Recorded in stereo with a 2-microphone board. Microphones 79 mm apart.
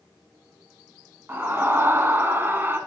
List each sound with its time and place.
1.3 s a scream: 30° right (ahead or behind), 1.4 m